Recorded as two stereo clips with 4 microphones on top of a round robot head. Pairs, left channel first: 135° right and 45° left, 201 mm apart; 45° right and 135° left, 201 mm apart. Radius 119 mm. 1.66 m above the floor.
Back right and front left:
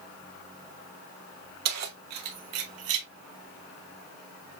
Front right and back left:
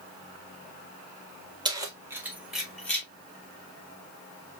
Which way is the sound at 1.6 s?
65° left.